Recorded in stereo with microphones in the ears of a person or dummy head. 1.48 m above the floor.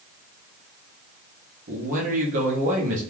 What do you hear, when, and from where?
1.7 s a man speaking: 50° right (ahead or behind), 0.7 m